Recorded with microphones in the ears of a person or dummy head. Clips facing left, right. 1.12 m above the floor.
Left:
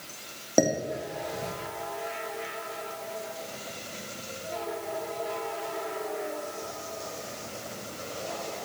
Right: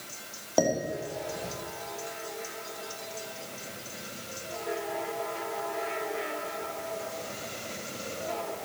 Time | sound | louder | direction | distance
0.6 | dishes clattering | left 2 dB | 35° left (ahead or behind) | 1.6 m